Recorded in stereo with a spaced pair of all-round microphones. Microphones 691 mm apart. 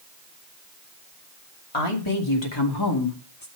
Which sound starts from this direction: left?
A woman speaking, at 1.7 s.